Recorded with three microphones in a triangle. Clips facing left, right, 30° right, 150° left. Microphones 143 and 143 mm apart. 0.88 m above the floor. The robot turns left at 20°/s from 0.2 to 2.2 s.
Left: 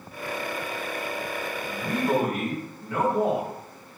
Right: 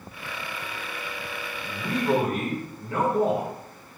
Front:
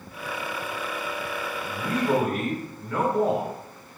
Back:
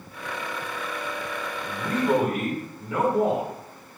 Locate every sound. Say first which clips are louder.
1.7 s a man speaking: right 1 dB, back 1 dB; 125° right, 1.5 m; by 3.5 s 135° right, 1.5 m